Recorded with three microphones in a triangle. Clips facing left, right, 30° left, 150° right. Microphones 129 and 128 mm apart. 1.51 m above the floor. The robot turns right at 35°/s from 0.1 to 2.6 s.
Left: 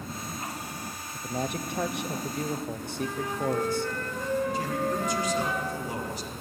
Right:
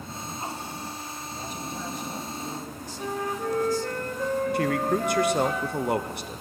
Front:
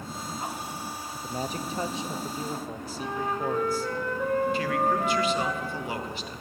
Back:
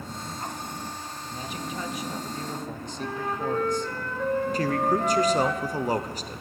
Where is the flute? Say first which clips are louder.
Right 1 dB, front 1 dB; 50° right, 1.7 m.